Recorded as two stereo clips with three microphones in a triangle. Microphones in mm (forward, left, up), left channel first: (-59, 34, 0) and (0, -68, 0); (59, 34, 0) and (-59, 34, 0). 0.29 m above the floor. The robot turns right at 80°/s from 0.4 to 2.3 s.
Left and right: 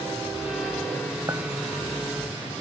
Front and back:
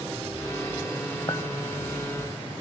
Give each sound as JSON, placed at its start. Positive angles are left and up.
{"t": 1.3, "sound": "a clink", "azimuth_deg": -20, "distance_m": 1.1}